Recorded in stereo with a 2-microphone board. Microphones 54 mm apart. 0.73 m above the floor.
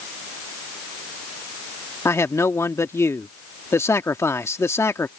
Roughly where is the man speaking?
Left.